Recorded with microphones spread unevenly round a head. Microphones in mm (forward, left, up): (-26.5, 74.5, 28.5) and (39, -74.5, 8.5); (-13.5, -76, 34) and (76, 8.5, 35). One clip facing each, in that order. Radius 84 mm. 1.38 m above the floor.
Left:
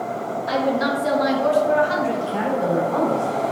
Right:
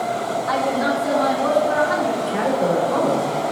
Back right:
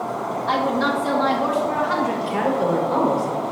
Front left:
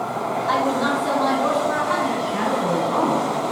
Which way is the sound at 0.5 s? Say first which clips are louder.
Left 1 dB, even; 170° left.